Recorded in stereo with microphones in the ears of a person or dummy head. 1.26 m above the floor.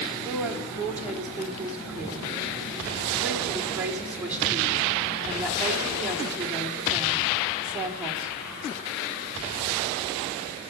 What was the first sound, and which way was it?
A woman speaking, 10° right (ahead or behind).